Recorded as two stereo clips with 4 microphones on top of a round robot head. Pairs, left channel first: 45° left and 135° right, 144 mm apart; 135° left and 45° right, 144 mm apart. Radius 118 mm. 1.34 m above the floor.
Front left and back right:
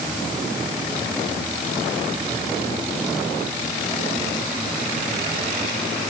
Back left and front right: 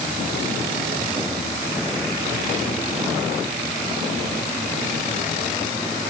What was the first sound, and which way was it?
Only background noise.